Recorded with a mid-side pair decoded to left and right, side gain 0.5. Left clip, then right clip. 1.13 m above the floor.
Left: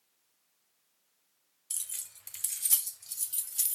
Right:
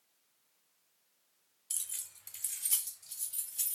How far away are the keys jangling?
About 0.7 m.